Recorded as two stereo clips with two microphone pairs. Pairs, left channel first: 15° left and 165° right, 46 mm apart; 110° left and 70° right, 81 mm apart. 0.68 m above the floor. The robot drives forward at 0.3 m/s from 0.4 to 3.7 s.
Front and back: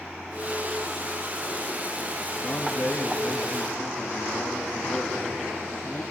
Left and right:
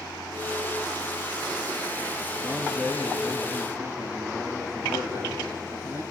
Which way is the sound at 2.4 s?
25° right.